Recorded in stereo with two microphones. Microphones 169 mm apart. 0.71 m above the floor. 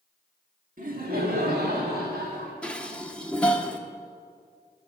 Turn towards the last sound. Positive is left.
turn(degrees=5)  # may be behind; listen again after turning